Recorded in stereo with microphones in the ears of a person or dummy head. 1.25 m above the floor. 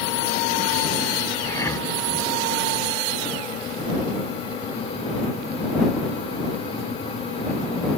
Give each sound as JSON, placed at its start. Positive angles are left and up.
{"t": 1.4, "sound": "breathing", "side_deg": 15}